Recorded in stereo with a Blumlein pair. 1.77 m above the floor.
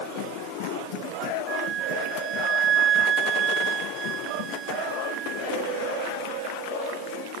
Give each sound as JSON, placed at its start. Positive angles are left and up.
{"t": 1.5, "sound": "a flute", "azimuth_deg": -25}